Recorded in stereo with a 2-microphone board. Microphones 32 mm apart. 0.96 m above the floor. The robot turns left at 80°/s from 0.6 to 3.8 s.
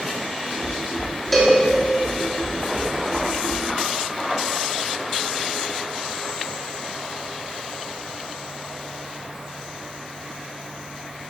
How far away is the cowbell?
About 2.5 m.